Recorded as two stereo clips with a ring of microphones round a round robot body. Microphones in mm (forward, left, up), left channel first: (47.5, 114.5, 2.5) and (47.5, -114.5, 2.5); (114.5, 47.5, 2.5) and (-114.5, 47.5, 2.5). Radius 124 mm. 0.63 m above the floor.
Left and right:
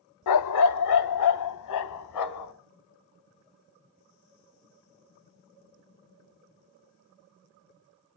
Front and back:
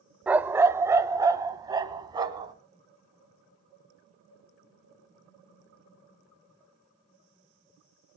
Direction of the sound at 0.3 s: 95° left.